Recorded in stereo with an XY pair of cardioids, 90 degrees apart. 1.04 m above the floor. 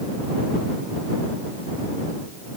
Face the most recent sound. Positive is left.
No sound to turn to.